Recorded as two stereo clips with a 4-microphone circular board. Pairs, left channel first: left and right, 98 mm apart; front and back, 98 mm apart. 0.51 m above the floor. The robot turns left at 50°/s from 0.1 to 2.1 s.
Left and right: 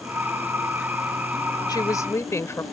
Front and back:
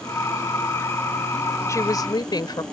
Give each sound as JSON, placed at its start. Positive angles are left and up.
{"t": 1.7, "sound": "a woman speaking", "azimuth_deg": 55}